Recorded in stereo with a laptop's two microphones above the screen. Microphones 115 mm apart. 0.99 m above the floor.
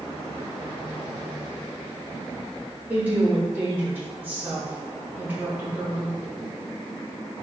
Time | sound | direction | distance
2.9 | a woman speaking | 15° right (ahead or behind) | 1.3 m